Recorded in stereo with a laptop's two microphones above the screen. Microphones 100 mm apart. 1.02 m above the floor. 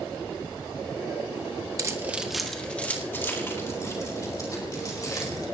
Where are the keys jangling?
35° right (ahead or behind), 0.9 m; by 5.5 s 40° left (ahead or behind), 4.5 m.